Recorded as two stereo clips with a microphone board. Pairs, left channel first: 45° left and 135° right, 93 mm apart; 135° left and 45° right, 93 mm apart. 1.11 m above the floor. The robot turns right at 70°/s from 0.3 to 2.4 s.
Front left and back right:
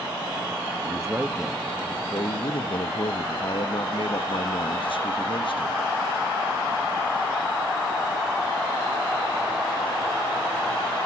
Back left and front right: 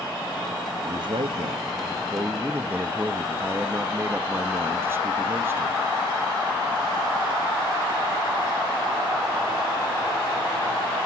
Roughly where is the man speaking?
Right.